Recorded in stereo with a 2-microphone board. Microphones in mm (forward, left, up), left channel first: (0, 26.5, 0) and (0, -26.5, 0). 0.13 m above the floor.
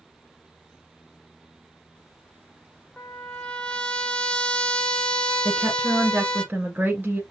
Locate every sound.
3.0 s a trumpet: 20° left (ahead or behind), 0.8 m
5.5 s a woman speaking: 30° right (ahead or behind), 1.9 m